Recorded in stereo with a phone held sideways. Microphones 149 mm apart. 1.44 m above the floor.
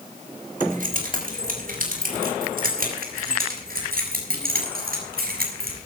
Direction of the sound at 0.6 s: 65° right (ahead or behind).